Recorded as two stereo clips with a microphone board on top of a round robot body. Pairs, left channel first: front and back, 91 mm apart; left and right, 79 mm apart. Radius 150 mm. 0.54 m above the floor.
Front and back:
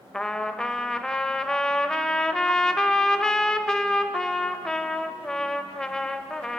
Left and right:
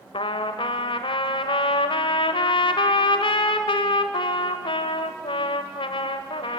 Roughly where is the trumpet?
Left.